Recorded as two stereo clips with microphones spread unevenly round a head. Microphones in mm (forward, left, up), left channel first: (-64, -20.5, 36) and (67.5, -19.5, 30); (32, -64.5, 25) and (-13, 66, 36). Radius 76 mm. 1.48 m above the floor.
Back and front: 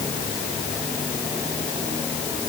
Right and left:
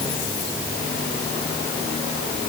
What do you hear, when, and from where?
Only background noise.